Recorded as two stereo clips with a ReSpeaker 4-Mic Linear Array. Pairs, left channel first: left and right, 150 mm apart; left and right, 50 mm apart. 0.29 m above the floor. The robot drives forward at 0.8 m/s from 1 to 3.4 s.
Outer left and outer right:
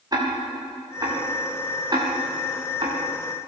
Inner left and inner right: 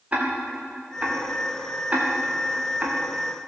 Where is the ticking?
25° right (ahead or behind), 7 m; by 3.0 s 35° right (ahead or behind), 5.5 m.